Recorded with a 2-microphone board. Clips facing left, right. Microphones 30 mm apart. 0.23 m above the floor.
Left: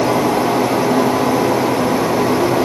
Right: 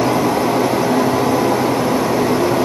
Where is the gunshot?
No gunshot in this recording.